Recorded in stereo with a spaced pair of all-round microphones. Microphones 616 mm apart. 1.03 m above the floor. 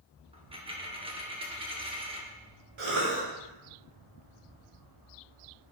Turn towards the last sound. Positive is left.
turn(degrees=-50)  # may be behind; listen again after turning